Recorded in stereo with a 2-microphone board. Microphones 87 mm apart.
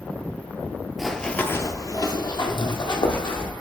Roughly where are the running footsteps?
Centre.